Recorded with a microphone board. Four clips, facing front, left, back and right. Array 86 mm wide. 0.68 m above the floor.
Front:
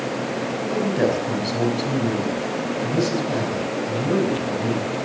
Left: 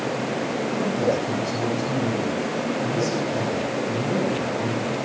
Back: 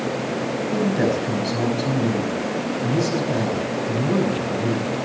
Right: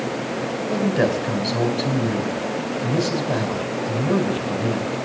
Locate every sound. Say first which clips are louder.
0.7 s a man speaking: right 4 dB, even; 90° right, 5.5 m